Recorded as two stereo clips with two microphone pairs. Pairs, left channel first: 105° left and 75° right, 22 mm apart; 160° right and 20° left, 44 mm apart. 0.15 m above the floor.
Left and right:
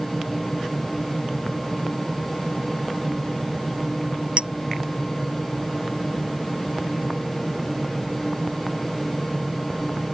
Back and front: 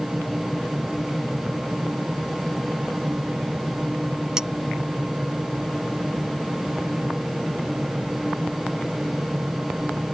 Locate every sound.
4.4 s a clink: 55° right